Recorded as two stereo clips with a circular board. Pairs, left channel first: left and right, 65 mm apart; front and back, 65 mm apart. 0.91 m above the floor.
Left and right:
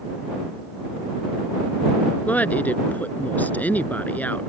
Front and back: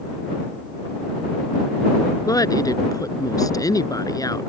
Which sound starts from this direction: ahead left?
A woman speaking, at 2.2 s.